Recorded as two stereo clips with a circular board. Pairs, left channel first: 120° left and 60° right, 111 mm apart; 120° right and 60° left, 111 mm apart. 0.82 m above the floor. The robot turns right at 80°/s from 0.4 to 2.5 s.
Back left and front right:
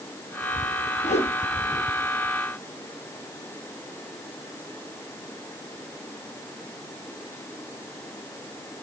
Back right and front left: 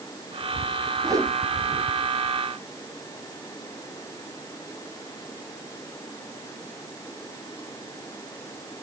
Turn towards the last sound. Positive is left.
turn(degrees=-135)